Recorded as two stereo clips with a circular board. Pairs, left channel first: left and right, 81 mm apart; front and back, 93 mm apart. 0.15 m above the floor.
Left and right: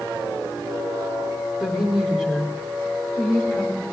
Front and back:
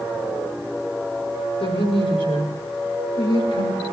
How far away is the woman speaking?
About 5.5 m.